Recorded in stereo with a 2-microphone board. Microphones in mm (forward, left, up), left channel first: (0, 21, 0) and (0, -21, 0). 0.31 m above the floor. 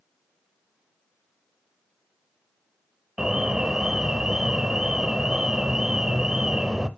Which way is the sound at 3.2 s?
20° right (ahead or behind).